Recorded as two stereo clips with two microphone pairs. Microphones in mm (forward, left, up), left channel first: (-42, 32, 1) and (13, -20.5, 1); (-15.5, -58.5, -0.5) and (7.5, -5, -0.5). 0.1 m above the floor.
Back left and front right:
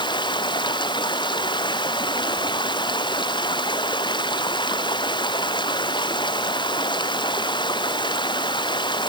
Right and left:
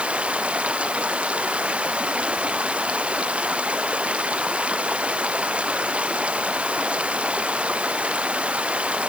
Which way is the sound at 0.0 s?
135° left.